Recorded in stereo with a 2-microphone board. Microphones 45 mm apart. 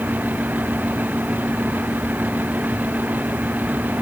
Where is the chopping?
No chopping in this recording.